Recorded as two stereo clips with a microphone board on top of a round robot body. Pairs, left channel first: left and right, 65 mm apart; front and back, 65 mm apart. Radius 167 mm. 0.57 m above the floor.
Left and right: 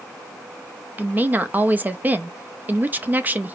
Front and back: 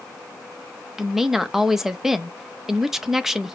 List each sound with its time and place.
1.0 s a woman speaking: 100° right, 0.8 m